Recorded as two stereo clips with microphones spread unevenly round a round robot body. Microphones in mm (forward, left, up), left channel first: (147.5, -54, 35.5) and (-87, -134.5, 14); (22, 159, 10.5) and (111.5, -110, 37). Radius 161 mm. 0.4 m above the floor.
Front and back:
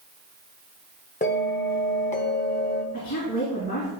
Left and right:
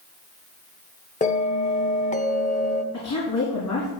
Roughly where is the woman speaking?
Left.